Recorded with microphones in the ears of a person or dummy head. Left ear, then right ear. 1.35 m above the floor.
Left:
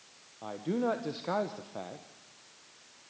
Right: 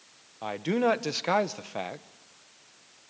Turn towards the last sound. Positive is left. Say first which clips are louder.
# right 6 dB
turn(degrees=-60)  # may be behind; listen again after turning